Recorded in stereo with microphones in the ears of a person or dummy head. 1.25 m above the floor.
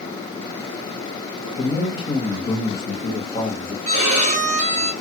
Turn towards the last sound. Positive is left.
turn(degrees=-30)  # may be behind; listen again after turning